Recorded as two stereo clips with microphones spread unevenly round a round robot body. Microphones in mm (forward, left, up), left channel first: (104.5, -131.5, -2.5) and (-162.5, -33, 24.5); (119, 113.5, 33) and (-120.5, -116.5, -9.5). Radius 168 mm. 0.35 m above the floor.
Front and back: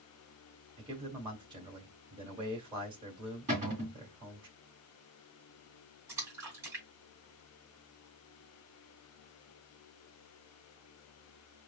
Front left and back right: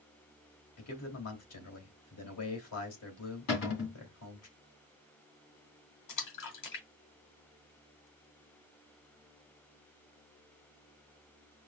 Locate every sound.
0.8 s a man speaking: 85° left, 2.5 m
3.5 s a cupboard door: 90° left, 2 m
6.1 s a splash: 75° left, 2.5 m